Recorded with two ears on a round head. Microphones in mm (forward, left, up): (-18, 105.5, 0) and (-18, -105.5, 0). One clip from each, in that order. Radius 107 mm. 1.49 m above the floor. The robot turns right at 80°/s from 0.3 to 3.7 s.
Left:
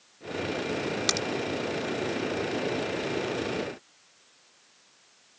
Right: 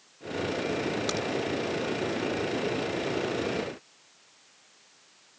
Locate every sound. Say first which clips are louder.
1.1 s a crack: left 3 dB; 55° left (ahead or behind); by 1.3 s 40° left (ahead or behind)